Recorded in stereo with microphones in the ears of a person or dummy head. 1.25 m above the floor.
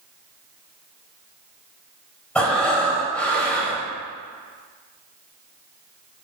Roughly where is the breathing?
Centre.